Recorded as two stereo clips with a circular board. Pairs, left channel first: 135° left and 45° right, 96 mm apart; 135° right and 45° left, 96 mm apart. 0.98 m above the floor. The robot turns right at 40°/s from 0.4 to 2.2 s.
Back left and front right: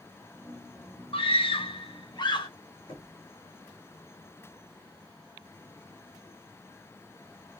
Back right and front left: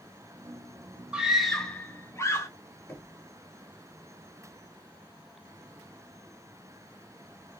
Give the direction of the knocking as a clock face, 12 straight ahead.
7 o'clock.